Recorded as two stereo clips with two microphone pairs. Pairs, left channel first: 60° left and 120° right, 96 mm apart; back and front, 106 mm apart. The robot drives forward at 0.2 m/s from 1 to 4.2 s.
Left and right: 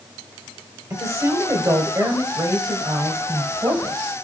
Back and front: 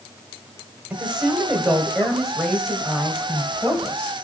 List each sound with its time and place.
0.9 s a woman speaking: 75° right, 1.7 m; by 4.1 s 105° right, 1.7 m